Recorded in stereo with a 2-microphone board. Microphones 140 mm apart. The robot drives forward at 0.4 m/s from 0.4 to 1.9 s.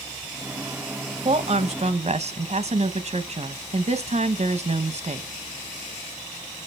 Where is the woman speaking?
50° right (ahead or behind), 0.8 m; by 5.3 s 55° right (ahead or behind), 0.7 m.